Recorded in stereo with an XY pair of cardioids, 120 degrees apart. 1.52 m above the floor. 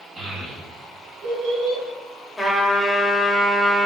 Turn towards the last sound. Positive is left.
turn(degrees=5)